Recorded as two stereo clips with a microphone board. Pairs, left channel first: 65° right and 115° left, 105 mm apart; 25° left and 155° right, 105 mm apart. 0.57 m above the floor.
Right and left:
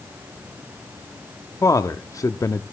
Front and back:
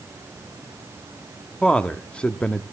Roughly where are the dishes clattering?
No dishes clattering in this recording.